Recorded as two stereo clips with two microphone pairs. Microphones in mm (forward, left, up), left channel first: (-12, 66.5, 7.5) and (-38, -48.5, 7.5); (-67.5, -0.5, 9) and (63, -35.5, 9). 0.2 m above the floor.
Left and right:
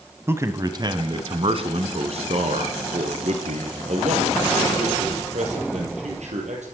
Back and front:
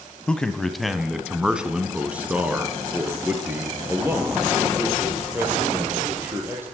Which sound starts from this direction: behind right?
A man speaking, at 0.3 s.